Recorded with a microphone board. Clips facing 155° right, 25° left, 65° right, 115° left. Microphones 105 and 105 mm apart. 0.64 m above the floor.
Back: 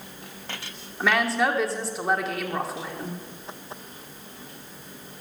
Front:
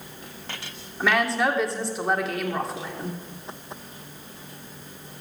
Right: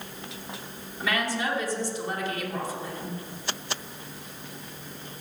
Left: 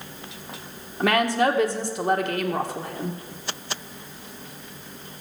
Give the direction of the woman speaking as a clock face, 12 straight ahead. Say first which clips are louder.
Even, left 8 dB; 8 o'clock.